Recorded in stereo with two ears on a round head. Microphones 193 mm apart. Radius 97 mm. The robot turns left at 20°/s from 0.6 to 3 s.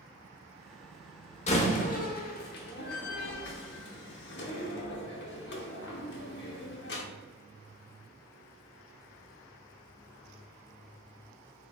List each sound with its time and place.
1.5 s a door slam: 35° left (ahead or behind), 0.7 m; by 7.0 s 55° left (ahead or behind), 0.7 m